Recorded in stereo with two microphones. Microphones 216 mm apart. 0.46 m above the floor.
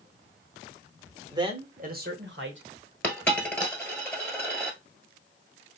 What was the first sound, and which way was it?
A man speaking, 15° right (ahead or behind).